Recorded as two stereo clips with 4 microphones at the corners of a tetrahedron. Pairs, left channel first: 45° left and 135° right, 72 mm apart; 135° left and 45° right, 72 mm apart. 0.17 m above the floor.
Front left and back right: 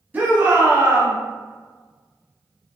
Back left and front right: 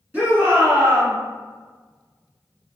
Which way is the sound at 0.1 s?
90° right.